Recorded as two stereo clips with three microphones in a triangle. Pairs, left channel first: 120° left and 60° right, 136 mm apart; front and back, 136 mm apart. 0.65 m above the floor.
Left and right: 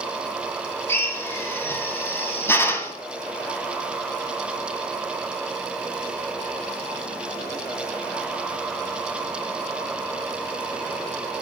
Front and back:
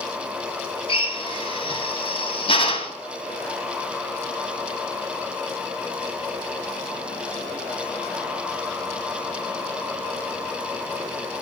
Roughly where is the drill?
Ahead left.